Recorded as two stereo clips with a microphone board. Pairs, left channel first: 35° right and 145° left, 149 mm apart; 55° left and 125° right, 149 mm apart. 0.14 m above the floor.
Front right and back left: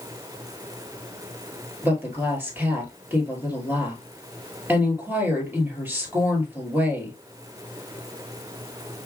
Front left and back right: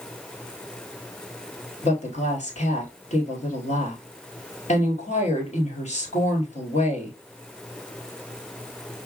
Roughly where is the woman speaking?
Left.